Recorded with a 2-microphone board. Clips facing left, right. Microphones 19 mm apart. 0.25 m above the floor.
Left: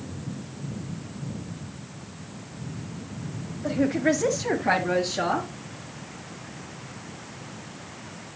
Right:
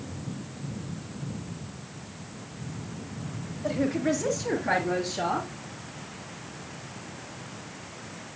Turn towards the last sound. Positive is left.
turn(degrees=60)  # may be behind; listen again after turning